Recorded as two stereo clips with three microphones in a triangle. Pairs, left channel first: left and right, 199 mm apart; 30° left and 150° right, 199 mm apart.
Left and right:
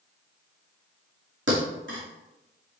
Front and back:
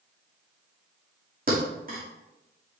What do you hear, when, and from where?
1.5 s a thud: 105° right, 2.5 m